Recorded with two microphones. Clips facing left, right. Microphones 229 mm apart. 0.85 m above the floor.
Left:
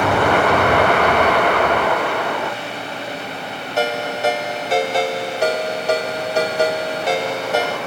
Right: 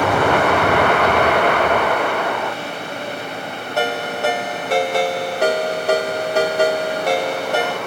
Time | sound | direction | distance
3.8 | a ringtone | 55° right (ahead or behind) | 1.2 m